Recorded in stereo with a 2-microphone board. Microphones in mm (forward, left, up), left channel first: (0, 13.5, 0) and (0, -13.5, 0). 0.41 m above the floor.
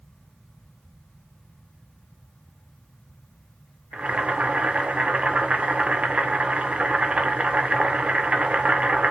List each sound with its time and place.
3.9 s boiling: 40° right (ahead or behind), 0.5 m